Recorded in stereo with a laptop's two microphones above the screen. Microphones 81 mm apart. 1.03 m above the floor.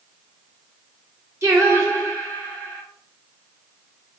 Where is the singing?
35° right (ahead or behind), 0.8 m.